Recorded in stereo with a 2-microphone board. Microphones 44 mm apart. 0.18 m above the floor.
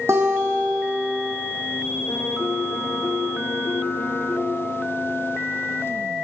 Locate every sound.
0.1 s a guitar: 80° right, 3.5 m
2.1 s a piano: 80° left, 5.5 m